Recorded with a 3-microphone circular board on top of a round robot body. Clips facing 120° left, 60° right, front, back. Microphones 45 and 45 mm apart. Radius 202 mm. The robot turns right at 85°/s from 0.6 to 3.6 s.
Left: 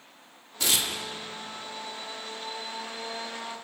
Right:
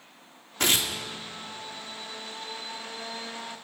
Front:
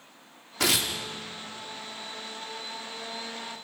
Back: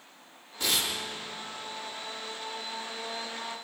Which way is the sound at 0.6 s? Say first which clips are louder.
Right 3 dB, front 3 dB; 20° right.